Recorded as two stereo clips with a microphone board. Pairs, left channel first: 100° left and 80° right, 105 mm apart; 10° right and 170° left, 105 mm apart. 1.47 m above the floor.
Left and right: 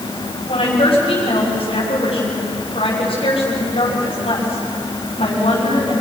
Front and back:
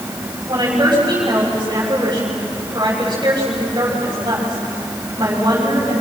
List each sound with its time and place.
0.5 s a woman speaking: 120° left, 6.5 m